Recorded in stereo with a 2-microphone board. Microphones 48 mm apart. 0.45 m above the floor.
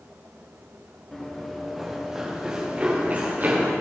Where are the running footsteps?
10° left (ahead or behind), 3.5 m; by 3.7 s 40° right (ahead or behind), 4 m.